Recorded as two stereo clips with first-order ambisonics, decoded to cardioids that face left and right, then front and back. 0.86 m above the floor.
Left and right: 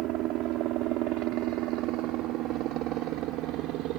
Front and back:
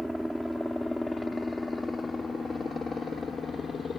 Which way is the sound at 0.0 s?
95° right.